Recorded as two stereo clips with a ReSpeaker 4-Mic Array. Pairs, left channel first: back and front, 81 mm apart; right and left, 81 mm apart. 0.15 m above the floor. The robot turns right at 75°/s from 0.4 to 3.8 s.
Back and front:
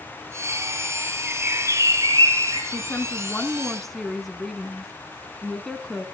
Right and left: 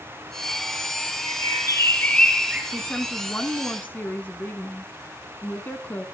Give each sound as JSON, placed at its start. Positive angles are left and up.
{"t": 1.3, "sound": "a bird", "azimuth_deg": -80, "distance_m": 2.5}
{"t": 2.7, "sound": "a woman speaking", "azimuth_deg": -175, "distance_m": 1.2}